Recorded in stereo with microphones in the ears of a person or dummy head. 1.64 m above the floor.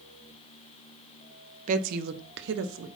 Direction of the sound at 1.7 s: 50° right (ahead or behind).